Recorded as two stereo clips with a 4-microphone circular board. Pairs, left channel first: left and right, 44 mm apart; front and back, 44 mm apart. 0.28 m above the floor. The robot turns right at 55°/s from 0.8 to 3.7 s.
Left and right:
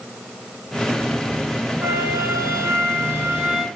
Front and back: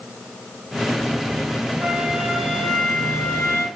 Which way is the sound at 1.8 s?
115° right.